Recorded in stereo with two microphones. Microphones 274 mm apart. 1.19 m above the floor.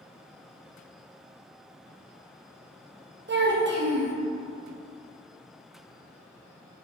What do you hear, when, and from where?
3.3 s a child speaking: 40° right (ahead or behind), 0.6 m